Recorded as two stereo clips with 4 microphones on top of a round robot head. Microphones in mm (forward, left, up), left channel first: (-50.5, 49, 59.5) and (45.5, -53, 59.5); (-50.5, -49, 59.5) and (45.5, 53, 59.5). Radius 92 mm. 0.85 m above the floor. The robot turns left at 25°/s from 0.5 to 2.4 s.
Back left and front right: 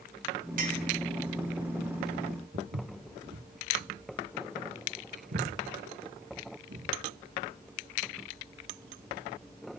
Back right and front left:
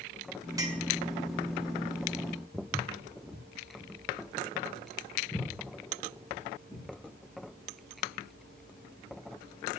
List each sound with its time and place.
0.6 s a clink: 20° right, 1.5 m; by 0.8 s 25° right, 1.5 m
2.5 s footsteps: 40° right, 3 m; by 6.9 s 65° right, 5 m